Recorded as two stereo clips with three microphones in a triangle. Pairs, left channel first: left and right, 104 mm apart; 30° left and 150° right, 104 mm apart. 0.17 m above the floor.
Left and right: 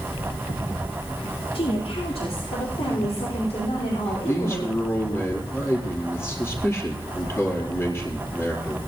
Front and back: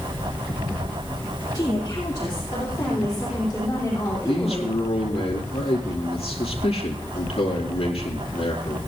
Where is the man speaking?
25° left, 4 m.